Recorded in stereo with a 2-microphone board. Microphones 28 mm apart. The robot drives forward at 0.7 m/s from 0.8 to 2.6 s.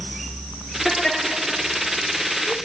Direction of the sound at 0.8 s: 10° left (ahead or behind).